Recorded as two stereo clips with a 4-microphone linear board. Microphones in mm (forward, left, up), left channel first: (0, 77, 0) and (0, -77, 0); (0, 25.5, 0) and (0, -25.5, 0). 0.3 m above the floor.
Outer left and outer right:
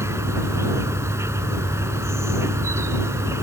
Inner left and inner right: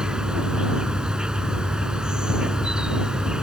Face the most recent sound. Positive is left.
turn(degrees=-20)  # may be behind; listen again after turning